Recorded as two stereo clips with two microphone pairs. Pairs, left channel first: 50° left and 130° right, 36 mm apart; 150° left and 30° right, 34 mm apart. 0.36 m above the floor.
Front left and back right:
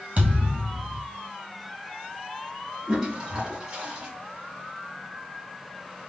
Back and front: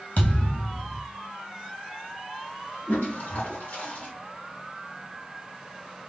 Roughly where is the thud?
Behind.